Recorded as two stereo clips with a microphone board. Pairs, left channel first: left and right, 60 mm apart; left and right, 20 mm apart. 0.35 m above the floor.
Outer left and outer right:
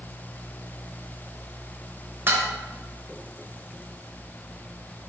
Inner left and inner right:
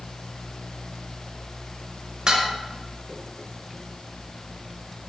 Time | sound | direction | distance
2.3 | dishes clattering | 40° right (ahead or behind) | 0.9 m